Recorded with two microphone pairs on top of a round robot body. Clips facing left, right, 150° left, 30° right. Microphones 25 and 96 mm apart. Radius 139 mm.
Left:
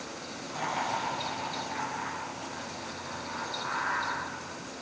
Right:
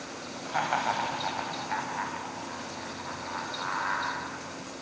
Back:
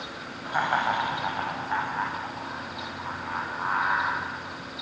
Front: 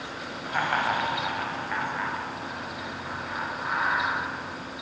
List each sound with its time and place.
0.5 s laughter: 130° right, 5.5 m; by 4.2 s 170° right, 8.5 m